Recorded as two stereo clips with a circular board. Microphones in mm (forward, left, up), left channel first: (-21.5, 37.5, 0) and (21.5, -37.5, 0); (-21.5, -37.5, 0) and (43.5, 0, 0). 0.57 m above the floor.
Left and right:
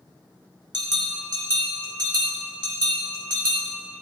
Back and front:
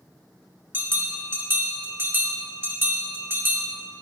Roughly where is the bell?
Ahead right.